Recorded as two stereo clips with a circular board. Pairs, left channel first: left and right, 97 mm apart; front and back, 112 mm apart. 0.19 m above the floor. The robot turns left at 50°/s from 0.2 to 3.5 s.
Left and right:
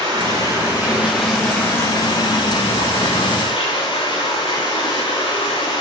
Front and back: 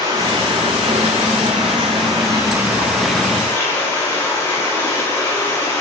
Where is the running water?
130° right, 6 m; by 5.8 s 65° left, 6 m.